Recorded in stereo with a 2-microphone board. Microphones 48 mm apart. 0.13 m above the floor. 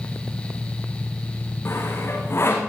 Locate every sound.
1.6 s sawing: 55° left (ahead or behind), 8 m